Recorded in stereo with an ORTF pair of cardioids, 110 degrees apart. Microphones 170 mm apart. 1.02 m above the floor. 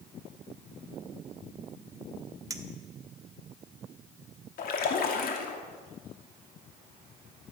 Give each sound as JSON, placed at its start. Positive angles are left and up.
{"t": 2.5, "sound": "a clink", "azimuth_deg": -20, "distance_m": 1.4}
{"t": 4.6, "sound": "a splash", "azimuth_deg": 60, "distance_m": 2.5}